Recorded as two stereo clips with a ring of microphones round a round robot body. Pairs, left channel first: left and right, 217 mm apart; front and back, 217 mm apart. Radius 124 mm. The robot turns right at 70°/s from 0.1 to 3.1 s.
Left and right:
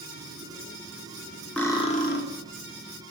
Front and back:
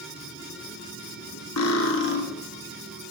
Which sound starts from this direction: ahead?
Cutlery clinking, at 1.6 s.